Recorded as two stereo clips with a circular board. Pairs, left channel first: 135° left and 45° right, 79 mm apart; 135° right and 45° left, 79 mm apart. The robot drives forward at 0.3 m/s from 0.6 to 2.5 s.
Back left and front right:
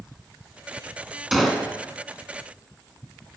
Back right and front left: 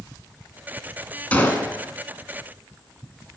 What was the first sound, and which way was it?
A gunshot, 130° right.